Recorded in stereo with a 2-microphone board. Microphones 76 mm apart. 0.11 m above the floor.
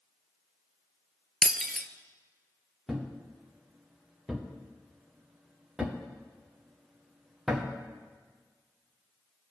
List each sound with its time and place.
1.4 s breaking glass: centre (ahead or behind), 0.5 m
2.9 s a thud: 5° right (ahead or behind), 1.9 m